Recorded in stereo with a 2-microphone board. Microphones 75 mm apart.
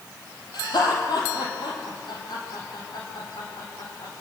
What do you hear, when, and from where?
0.5 s laughter: 70° left (ahead or behind), 3.5 m; by 4.1 s 75° left (ahead or behind), 7 m